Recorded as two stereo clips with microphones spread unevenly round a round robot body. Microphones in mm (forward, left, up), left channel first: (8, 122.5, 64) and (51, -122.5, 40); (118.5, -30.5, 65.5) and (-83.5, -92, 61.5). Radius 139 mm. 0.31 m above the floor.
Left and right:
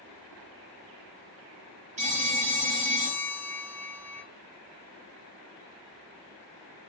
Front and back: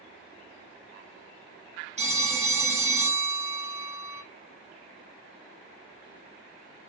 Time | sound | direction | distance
2.0 | a phone ringing | 120° right | 1.0 m